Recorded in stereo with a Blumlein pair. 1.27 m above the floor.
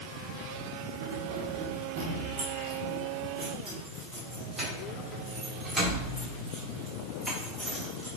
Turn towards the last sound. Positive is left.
turn(degrees=-5)